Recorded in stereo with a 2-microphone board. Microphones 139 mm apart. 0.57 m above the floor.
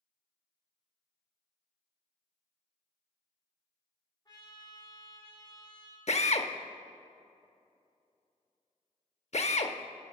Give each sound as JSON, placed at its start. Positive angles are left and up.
{"t": 4.2, "sound": "a trumpet", "side_deg": 30, "distance_m": 1.6}
{"t": 6.1, "sound": "a drill", "side_deg": 55, "distance_m": 0.6}